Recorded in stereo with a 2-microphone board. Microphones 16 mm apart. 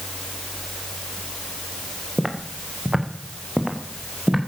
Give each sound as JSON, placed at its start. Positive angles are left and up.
{"t": 2.2, "sound": "footsteps", "side_deg": -40, "distance_m": 2.5}